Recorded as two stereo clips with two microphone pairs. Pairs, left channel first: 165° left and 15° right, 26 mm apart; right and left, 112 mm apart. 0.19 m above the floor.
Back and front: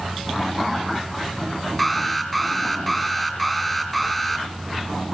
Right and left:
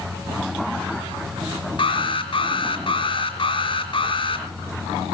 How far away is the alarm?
About 5 m.